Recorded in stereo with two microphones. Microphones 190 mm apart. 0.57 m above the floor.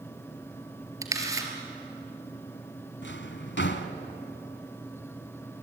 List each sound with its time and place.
1.0 s a camera shutter: 15° right (ahead or behind), 3 m
3.0 s a drawer: 75° left (ahead or behind), 1.4 m